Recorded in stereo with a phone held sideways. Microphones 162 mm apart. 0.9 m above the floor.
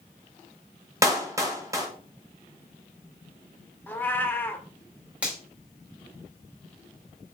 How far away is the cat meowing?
About 0.7 m.